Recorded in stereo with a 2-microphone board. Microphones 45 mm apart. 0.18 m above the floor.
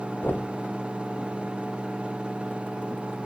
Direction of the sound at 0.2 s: 45° left (ahead or behind).